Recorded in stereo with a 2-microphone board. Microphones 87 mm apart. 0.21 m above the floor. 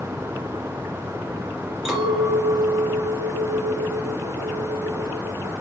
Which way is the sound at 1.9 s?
5° right (ahead or behind).